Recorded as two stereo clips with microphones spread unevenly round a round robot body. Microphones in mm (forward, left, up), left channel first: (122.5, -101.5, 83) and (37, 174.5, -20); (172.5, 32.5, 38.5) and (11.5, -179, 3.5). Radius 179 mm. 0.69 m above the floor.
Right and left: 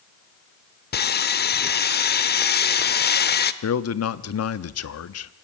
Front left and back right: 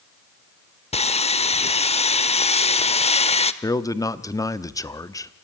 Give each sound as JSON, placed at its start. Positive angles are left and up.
{"t": 0.9, "sound": "sawing", "azimuth_deg": -15, "distance_m": 1.1}
{"t": 3.6, "sound": "a man speaking", "azimuth_deg": -30, "distance_m": 1.1}